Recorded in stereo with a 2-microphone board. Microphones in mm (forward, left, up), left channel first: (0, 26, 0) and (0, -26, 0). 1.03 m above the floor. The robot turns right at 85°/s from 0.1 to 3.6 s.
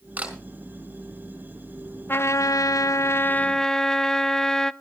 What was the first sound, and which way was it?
A camera shutter, 25° right (ahead or behind).